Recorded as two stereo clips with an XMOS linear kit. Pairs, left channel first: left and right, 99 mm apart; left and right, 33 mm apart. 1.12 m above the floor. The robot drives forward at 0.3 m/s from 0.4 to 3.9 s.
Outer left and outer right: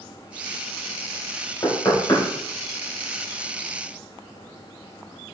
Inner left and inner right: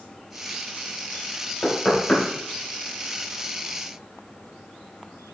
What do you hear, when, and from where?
1.6 s knocking: 40° left (ahead or behind), 3 m